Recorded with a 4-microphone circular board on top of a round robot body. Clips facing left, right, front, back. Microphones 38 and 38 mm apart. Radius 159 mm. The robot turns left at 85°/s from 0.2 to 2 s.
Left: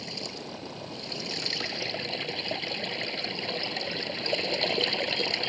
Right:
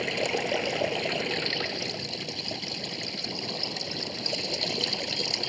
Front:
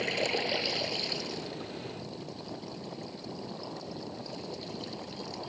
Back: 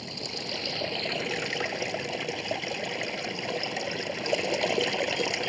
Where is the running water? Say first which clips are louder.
Right 10 dB, front 6 dB; 55° right; by 5.5 s 155° left.